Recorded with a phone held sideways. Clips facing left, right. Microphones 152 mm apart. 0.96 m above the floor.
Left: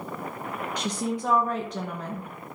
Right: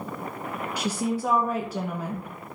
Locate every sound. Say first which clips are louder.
0.8 s a woman speaking: right 3 dB; 10° right (ahead or behind), 0.8 m